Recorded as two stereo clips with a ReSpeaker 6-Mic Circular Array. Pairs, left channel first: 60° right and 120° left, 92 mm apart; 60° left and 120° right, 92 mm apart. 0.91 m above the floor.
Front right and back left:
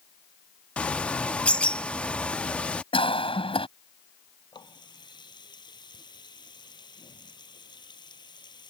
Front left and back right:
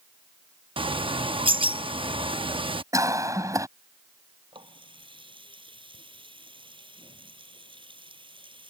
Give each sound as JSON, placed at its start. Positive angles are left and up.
{"t": 0.8, "sound": "a bird", "azimuth_deg": -135}
{"t": 2.9, "sound": "a cough", "azimuth_deg": -65}
{"t": 4.5, "sound": "a running tap", "azimuth_deg": -95}